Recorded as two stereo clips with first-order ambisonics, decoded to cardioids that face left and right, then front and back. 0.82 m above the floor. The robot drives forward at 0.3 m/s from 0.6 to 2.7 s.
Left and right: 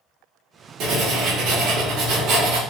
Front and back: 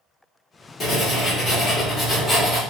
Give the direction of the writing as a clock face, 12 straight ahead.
2 o'clock.